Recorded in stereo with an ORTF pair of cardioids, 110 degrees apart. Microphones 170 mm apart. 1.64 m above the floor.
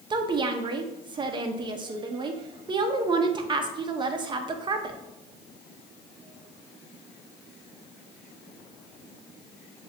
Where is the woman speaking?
25° right, 0.7 m.